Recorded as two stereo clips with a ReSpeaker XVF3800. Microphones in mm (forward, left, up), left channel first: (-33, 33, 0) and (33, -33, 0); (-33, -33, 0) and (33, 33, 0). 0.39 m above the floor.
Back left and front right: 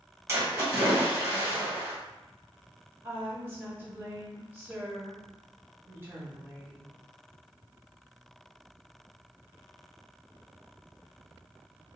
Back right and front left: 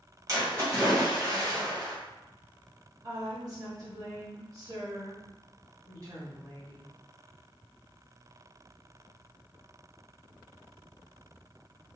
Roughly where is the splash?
Ahead.